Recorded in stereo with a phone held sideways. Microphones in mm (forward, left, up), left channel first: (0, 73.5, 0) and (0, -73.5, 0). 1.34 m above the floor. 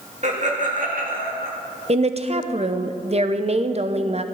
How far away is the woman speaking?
About 0.7 m.